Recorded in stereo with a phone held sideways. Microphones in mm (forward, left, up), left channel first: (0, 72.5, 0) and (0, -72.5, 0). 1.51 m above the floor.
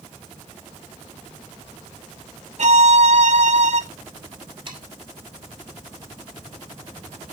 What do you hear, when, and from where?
2.6 s a violin: 60° right (ahead or behind), 1.7 m
4.7 s sawing: 35° right (ahead or behind), 6.5 m